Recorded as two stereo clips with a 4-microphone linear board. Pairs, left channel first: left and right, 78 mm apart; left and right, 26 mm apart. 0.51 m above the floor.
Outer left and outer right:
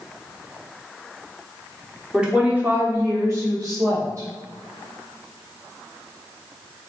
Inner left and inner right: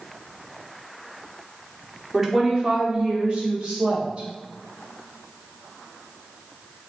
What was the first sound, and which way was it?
A woman speaking, 10° right (ahead or behind).